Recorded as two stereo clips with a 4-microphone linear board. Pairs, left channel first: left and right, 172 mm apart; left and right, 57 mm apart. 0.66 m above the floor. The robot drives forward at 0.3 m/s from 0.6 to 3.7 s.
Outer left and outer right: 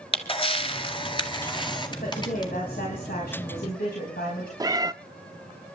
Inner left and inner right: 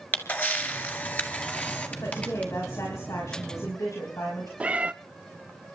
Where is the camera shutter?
30° left (ahead or behind), 1.8 m; by 2.5 s 25° left (ahead or behind), 2.5 m.